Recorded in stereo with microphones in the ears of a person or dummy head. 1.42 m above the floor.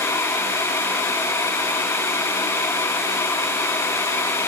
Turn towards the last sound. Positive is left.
No sound to turn to.